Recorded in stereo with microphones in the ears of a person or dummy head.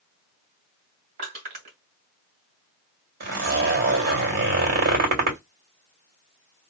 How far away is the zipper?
About 2.5 m.